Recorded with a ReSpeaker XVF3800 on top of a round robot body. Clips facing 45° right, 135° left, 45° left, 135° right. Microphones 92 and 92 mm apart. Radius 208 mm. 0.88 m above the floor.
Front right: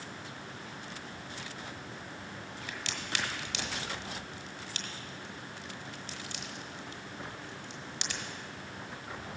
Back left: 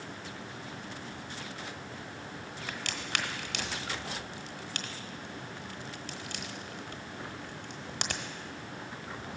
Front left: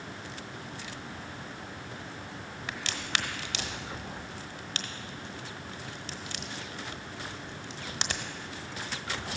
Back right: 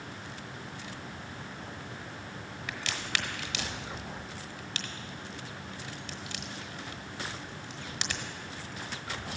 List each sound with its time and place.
2.7 s a crack: 100° left, 1.1 m